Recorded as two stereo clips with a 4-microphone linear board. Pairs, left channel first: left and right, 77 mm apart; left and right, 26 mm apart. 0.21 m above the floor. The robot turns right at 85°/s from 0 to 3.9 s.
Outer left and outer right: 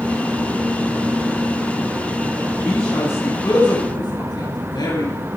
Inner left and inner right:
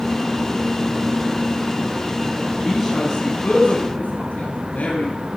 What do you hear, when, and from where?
2.6 s a man speaking: 10° right (ahead or behind), 8.5 m; by 5.2 s 75° left (ahead or behind), 8.5 m